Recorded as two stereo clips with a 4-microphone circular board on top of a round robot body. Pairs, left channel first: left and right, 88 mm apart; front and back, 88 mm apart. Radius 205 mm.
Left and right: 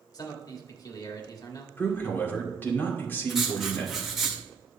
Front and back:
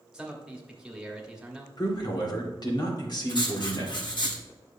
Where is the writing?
5° right, 2 m.